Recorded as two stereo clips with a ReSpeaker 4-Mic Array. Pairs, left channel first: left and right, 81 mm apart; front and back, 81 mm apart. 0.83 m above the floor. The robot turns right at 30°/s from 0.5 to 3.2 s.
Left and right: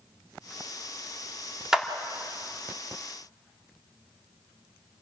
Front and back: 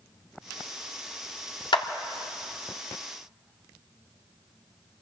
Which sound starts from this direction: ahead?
A clap, at 1.7 s.